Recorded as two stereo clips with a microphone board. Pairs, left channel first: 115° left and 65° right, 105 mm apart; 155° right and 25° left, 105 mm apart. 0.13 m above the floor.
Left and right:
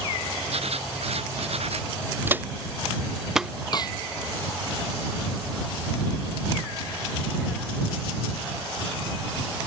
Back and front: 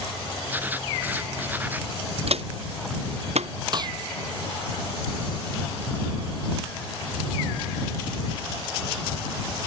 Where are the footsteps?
5° left; by 3.5 s 20° left.